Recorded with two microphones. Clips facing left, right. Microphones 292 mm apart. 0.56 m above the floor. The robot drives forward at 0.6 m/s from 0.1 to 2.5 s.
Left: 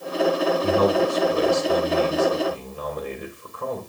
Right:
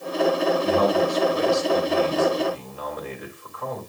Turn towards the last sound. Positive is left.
turn(degrees=35)  # may be behind; listen again after turning